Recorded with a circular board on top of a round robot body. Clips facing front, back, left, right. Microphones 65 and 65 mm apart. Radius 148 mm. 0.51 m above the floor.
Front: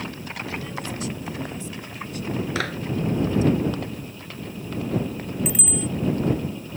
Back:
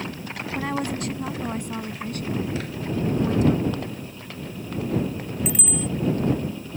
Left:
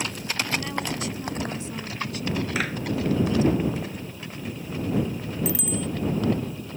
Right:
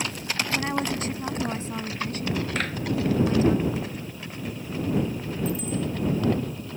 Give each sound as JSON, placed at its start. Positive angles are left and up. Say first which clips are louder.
{"t": 0.6, "sound": "a woman speaking", "louder": "back 9 dB, right 3 dB", "azimuth_deg": -145}
{"t": 2.5, "sound": "a clap", "louder": "front 4 dB, left 1 dB", "azimuth_deg": 5}
{"t": 5.5, "sound": "a bicycle bell", "louder": "back 1 dB, right 1 dB", "azimuth_deg": 90}